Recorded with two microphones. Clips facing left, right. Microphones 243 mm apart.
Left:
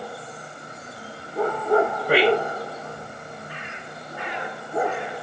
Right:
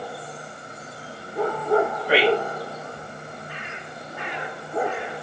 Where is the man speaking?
50° left (ahead or behind), 3 m.